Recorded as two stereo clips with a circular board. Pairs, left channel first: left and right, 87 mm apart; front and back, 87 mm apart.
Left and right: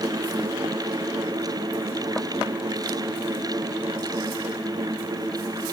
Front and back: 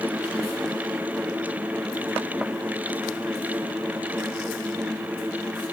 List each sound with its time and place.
Only background noise.